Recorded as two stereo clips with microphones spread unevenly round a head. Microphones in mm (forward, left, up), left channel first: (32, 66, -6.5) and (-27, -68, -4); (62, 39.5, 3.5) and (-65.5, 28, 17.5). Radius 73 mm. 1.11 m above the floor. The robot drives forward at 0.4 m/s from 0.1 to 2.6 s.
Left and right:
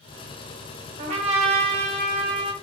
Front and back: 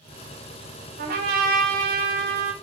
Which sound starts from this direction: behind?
A trumpet, at 1.0 s.